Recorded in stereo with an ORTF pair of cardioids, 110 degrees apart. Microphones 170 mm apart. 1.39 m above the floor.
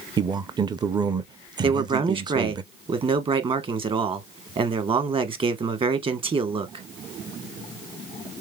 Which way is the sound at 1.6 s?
30° right.